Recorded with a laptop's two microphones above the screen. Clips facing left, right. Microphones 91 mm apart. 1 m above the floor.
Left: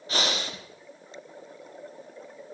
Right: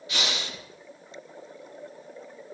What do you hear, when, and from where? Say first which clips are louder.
0.1 s breathing: left 3 dB; 35° left (ahead or behind), 0.6 m